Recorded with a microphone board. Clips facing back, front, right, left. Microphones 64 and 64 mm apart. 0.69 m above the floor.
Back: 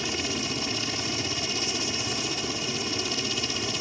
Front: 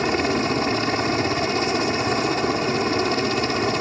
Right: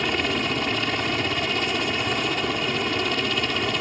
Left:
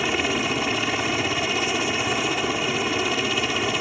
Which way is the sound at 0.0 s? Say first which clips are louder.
Front 10 dB, left 1 dB; 10° left.